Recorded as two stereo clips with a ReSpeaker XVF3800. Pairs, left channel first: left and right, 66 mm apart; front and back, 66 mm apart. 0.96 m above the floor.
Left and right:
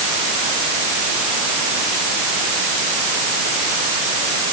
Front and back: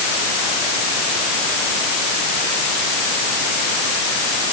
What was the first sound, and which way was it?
Only background noise.